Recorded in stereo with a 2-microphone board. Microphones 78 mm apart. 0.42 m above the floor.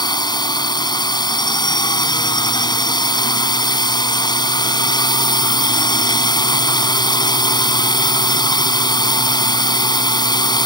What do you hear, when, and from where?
0.0 s a drone: 60° left (ahead or behind)